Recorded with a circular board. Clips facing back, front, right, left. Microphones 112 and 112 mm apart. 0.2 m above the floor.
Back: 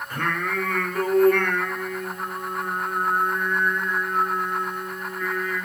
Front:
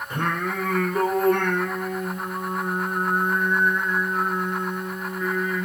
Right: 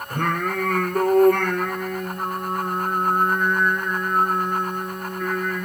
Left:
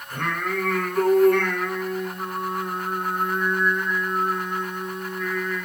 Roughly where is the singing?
Ahead right.